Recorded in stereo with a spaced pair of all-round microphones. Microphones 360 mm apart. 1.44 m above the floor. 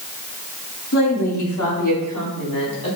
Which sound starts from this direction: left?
A woman speaking, at 0.9 s.